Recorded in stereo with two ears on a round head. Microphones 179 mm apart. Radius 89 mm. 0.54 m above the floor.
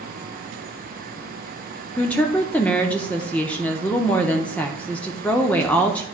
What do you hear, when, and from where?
2.0 s a woman speaking: 5° left (ahead or behind), 0.8 m